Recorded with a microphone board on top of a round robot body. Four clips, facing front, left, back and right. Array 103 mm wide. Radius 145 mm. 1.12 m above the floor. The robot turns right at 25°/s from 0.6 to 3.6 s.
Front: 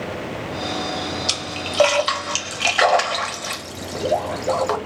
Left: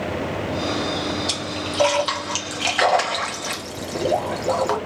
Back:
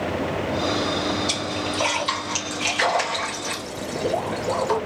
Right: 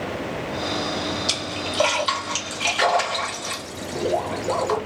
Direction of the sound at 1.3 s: 15° right.